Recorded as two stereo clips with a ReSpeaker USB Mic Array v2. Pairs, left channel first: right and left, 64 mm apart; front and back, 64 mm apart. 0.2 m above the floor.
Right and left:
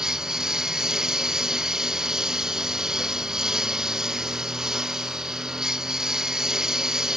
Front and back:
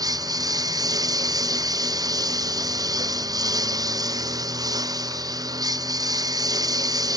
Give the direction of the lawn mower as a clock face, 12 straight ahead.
6 o'clock.